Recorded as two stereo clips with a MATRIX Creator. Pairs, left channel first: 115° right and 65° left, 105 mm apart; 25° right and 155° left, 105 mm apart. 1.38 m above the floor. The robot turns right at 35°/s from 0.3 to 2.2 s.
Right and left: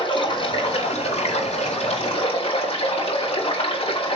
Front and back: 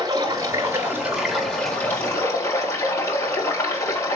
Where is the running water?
150° right, 4.5 m; by 4.2 s 85° right, 4.5 m.